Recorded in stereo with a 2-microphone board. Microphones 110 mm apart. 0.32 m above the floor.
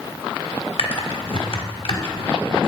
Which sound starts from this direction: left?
Typing on a keyboard, at 0.8 s.